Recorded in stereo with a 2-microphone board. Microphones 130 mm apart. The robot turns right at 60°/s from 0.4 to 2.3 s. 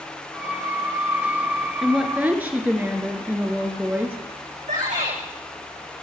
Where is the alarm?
No alarm in this recording.